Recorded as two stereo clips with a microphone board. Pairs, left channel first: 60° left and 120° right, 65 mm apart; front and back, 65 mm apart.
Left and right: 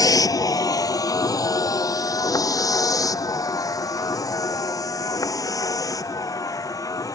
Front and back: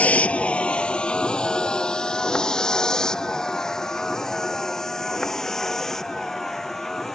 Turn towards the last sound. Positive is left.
turn(degrees=85)